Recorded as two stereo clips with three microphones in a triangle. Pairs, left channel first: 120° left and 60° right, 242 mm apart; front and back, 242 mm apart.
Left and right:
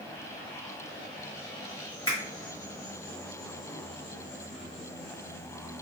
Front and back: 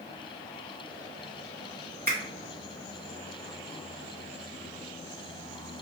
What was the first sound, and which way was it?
A finger snap, 135° left.